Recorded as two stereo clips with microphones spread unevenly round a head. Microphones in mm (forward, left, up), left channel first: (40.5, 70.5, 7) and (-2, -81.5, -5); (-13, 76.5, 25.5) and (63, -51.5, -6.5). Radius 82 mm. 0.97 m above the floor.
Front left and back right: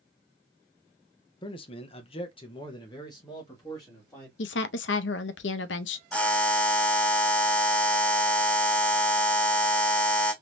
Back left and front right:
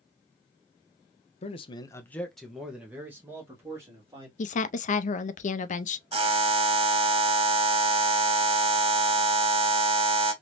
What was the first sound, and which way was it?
A man speaking, 115° left.